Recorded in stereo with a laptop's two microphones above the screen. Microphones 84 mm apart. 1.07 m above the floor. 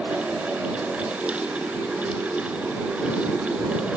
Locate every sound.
0.0 s a fan: 15° right (ahead or behind)